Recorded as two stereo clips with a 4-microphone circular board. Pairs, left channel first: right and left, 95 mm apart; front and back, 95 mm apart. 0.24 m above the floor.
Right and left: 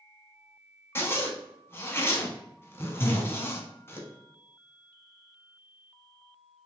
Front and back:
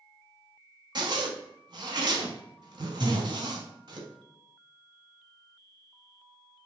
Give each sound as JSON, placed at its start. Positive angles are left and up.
{"t": 0.9, "sound": "a zipper", "azimuth_deg": -150, "distance_m": 0.7}
{"t": 3.0, "sound": "breathing", "azimuth_deg": -70, "distance_m": 0.7}